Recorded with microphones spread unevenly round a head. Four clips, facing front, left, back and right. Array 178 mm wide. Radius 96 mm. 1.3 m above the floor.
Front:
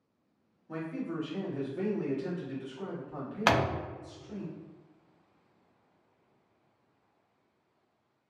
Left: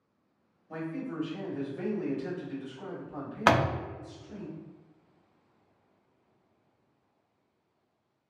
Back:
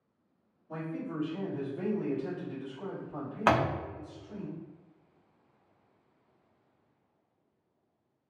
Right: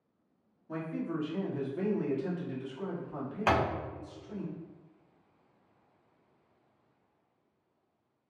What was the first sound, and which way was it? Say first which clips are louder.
A man speaking: right 1 dB, front 1 dB; 40° right.